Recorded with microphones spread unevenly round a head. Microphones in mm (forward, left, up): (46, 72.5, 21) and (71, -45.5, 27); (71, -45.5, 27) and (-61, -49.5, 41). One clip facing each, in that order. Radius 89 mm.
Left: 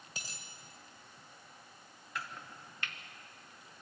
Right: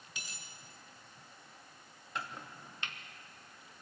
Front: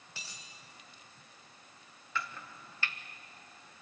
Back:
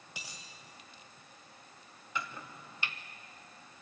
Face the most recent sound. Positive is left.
turn(degrees=-130)